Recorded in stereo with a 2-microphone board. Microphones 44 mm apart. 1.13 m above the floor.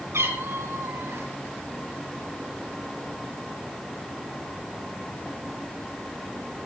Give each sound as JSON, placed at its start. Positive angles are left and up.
{"t": 0.1, "sound": "a cat meowing", "side_deg": -80, "distance_m": 5.0}